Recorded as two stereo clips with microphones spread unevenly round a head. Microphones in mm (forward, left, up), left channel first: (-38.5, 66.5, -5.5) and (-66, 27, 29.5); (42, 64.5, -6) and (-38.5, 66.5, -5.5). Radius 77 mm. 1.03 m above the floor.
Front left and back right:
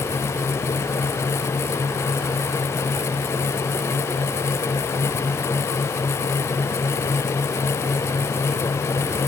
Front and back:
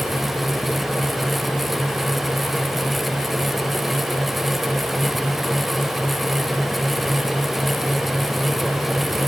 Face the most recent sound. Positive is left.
No sound to turn to.